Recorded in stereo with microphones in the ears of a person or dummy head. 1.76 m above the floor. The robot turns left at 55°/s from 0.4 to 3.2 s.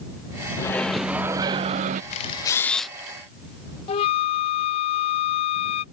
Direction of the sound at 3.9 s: 30° left (ahead or behind).